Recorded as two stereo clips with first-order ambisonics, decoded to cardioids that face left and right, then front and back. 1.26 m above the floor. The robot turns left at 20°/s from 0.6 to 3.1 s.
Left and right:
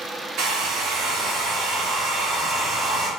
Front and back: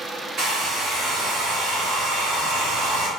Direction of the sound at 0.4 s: 130° right.